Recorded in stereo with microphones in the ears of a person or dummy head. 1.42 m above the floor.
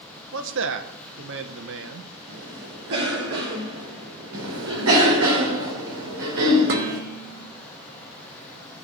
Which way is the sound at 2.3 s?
85° right.